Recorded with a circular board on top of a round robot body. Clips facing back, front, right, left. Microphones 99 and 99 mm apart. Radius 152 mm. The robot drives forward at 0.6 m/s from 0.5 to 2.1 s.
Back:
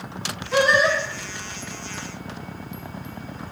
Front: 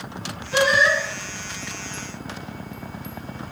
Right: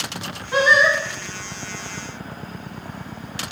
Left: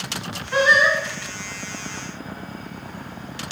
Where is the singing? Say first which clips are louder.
Even, right 1 dB; 160° right, 3 m.